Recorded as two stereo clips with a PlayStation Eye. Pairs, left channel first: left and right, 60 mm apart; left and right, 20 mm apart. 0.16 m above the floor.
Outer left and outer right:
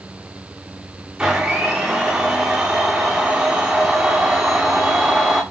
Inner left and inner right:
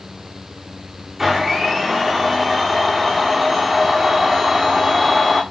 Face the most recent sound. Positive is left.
turn(degrees=-10)  # may be behind; listen again after turning